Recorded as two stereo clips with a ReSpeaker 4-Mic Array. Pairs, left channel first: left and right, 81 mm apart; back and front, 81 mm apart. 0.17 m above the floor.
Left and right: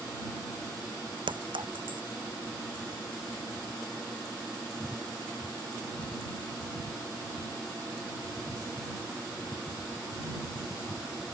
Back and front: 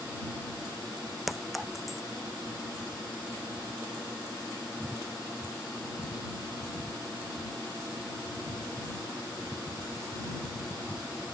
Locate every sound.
1.3 s a clink: 90° right